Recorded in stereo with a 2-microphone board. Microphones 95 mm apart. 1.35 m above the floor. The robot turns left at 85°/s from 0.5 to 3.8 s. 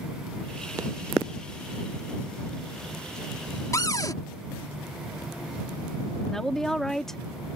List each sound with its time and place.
3.7 s a cupboard door: 35° left (ahead or behind); by 4.2 s 40° left (ahead or behind)
6.3 s a woman speaking: 5° left (ahead or behind)